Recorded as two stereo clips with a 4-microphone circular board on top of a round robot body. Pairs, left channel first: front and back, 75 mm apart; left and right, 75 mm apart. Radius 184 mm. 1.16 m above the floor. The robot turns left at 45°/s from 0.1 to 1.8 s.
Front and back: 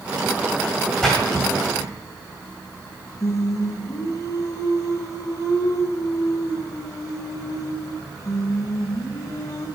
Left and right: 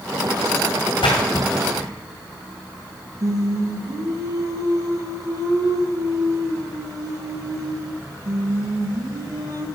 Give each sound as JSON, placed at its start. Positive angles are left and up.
{"t": 1.0, "sound": "a splash", "azimuth_deg": 85, "distance_m": 2.0}
{"t": 3.2, "sound": "singing", "azimuth_deg": -50, "distance_m": 1.7}